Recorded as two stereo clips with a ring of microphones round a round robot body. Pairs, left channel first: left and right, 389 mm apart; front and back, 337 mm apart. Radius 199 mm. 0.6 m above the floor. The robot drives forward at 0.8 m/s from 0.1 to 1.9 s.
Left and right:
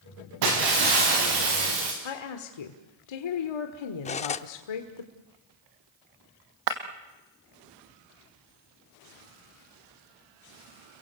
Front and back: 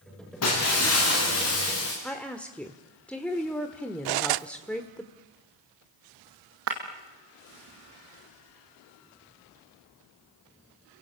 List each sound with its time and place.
0.4 s breaking glass: 55° right, 8 m; by 1.9 s 60° right, 7 m
2.0 s a woman speaking: 85° left, 1.7 m
4.0 s cutlery clinking: 165° left, 0.6 m
6.7 s breaking glass: 120° right, 2.5 m